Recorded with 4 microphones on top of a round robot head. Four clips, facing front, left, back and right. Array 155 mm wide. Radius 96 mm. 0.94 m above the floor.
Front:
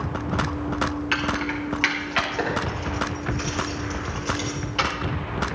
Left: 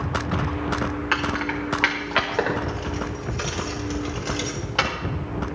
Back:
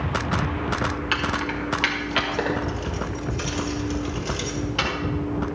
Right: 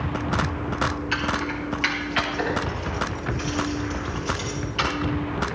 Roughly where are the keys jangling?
Left.